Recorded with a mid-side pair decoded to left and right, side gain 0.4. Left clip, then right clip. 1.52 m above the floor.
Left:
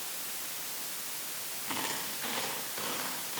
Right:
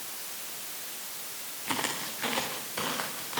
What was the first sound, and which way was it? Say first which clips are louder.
Footsteps: right 4 dB; 55° right.